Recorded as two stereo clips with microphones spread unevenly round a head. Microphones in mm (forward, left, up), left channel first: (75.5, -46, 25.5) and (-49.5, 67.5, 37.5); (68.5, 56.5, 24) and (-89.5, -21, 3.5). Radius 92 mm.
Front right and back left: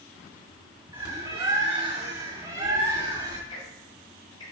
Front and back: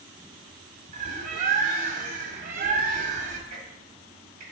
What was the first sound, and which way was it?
A bird, 165° right.